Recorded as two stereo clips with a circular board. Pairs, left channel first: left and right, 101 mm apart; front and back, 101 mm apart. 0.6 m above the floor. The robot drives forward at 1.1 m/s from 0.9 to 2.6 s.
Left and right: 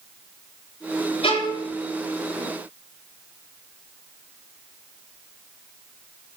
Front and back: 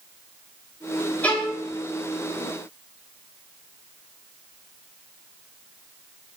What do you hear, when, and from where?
1.2 s a violin: 75° left, 3.5 m; by 1.7 s 85° left, 3 m